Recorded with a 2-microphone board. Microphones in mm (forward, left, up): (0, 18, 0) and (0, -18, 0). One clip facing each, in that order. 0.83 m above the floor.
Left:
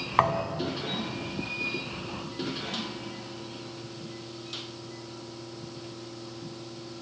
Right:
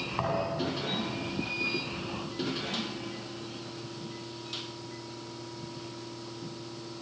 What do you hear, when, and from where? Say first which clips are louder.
0.2 s a thud: left 6 dB; 70° left (ahead or behind), 3 m